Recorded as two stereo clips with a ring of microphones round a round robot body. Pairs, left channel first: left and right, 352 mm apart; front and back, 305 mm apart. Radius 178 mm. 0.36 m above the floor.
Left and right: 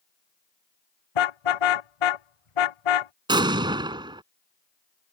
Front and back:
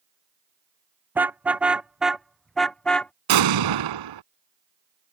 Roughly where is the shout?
No shout in this recording.